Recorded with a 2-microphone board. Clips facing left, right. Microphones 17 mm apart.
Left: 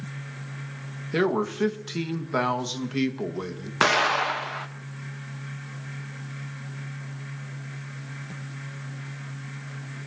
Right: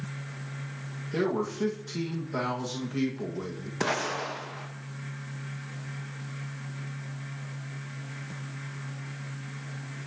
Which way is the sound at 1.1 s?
35° left (ahead or behind).